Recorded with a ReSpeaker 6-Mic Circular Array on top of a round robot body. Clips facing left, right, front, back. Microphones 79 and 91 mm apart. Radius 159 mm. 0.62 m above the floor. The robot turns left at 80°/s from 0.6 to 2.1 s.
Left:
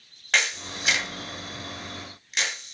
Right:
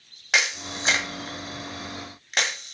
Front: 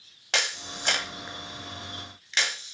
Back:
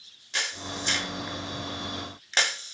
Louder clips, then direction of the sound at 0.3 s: Right 1 dB, front 2 dB; 10° right.